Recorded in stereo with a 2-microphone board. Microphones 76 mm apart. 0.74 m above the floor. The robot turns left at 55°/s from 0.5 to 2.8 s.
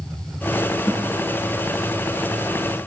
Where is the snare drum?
35° left (ahead or behind), 4 m; by 1.1 s 50° left (ahead or behind), 4 m.